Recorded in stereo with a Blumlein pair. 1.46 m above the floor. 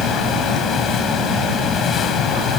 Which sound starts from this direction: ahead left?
A fan, at 0.0 s.